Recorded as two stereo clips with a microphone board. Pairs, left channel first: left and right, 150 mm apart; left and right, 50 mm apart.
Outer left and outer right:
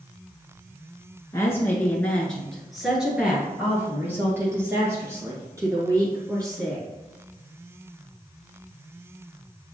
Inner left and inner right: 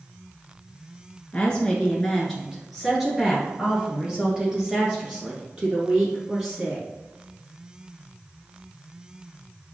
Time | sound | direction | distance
1.3 | a woman speaking | 20° left (ahead or behind) | 1.1 m